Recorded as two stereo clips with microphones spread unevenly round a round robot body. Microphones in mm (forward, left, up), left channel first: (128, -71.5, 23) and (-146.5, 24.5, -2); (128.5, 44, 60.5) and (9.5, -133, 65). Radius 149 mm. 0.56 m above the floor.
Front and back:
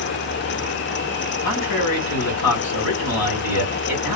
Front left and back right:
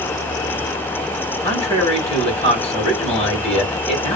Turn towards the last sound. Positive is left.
turn(degrees=-5)